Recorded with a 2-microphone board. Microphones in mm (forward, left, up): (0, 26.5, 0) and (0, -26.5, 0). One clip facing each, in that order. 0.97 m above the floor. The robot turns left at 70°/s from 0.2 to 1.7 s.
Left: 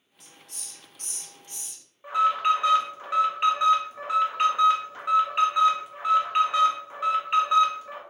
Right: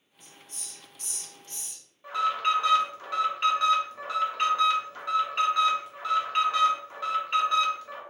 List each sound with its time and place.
0.2 s a hiss: 75° left (ahead or behind), 0.8 m; by 1.8 s centre (ahead or behind), 0.8 m
2.0 s an alarm: 20° left (ahead or behind), 0.8 m